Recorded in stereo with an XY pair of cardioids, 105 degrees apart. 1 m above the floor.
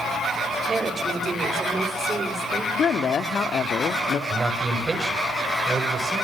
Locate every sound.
0.7 s a woman speaking: 30° right, 5.5 m
2.8 s a woman speaking: 55° left, 1.8 m
4.3 s a man speaking: 25° right, 6 m